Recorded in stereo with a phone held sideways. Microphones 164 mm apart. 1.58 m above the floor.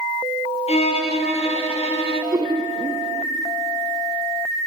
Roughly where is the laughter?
Right.